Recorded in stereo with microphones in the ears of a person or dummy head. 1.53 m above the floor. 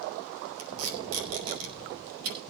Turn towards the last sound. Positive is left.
turn(degrees=-80)